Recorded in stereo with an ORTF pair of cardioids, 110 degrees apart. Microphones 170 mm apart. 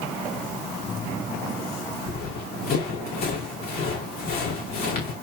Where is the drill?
No drill in this recording.